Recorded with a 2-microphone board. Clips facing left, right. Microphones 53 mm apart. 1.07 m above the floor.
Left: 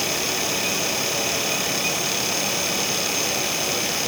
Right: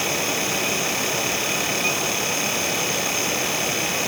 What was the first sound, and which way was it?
Only background noise.